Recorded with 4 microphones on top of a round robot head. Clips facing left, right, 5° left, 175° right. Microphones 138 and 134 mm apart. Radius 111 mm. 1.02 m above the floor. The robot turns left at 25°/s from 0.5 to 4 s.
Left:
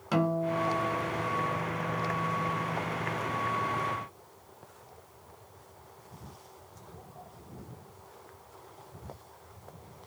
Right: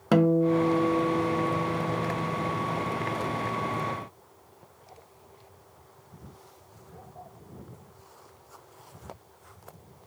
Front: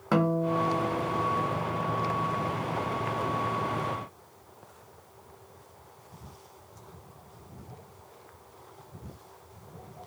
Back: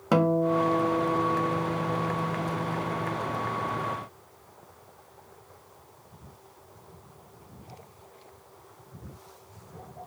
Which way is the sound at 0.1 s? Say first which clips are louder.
Right 7 dB, back 3 dB; 100° right.